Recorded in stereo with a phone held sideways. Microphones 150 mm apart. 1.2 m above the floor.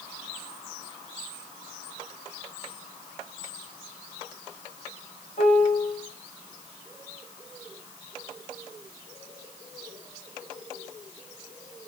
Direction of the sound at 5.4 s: 50° left (ahead or behind).